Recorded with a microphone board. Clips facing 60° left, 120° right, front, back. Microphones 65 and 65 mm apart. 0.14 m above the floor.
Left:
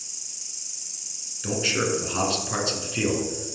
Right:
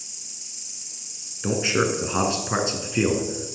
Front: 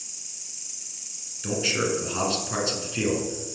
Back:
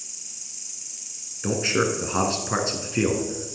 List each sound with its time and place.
0.0 s an insect: 90° right, 1.6 m
1.4 s a man speaking: 160° right, 1.4 m